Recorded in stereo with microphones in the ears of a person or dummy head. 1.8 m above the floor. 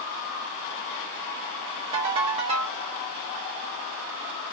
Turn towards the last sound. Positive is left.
turn(degrees=-25)  # may be behind; listen again after turning